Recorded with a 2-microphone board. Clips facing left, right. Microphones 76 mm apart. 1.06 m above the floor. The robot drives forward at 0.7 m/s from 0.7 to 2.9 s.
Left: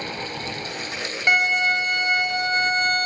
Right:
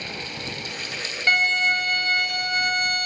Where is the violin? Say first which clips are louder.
Left 1 dB; 15° left (ahead or behind), 1.6 m; by 3.1 s 30° left (ahead or behind), 0.7 m.